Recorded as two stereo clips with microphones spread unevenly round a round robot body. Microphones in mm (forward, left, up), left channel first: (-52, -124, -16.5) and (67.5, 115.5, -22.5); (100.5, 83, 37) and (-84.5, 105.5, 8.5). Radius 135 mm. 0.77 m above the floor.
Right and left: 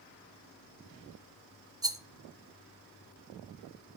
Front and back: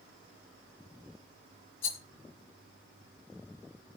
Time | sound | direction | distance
1.8 | a rattle | 15° right | 1.6 m